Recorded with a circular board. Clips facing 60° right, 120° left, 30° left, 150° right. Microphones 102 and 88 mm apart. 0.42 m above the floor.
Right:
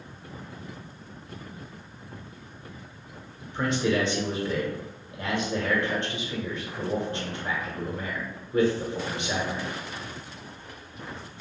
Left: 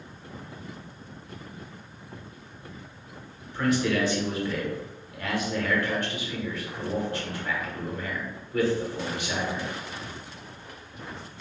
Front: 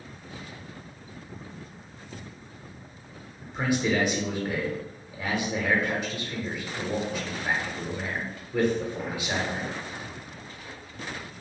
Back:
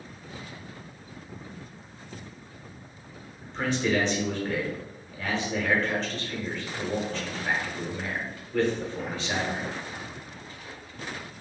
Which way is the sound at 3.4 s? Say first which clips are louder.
Left 1 dB, front 1 dB; 30° right.